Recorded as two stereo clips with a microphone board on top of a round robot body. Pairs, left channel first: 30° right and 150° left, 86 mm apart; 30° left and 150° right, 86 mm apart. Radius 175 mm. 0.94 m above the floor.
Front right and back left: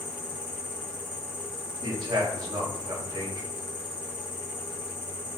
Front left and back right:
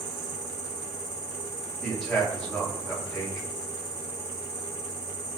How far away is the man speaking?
About 3 m.